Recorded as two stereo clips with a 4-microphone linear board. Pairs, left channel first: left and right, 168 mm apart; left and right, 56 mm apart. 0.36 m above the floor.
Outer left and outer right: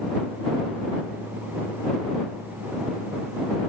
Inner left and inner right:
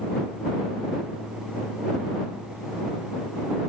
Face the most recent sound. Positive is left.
No sound to turn to.